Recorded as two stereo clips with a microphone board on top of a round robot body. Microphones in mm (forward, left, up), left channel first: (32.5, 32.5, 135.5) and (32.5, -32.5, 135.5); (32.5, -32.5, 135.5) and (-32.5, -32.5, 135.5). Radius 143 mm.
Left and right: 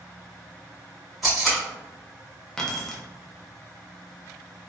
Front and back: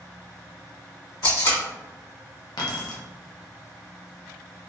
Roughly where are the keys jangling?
Ahead.